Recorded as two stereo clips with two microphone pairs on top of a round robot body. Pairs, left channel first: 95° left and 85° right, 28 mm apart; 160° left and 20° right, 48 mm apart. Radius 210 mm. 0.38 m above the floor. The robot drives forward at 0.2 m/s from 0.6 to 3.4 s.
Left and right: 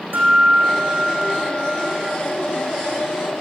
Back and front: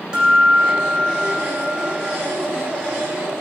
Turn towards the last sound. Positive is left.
turn(degrees=-95)